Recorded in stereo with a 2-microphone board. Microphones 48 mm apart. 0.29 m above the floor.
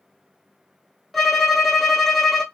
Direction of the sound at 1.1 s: Centre (ahead or behind).